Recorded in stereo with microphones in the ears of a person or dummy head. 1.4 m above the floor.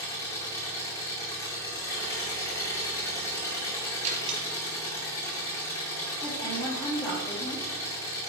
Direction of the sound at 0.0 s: 15° left (ahead or behind).